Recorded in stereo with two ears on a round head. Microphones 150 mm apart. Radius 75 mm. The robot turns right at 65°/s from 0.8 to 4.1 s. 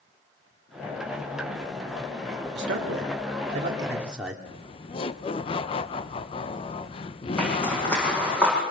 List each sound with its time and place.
2.5 s a man speaking: 105° right, 2.5 m; by 4.3 s 5° right, 2.5 m
4.5 s laughter: 35° left (ahead or behind), 0.9 m
7.4 s a zipper: 10° left (ahead or behind), 8.5 m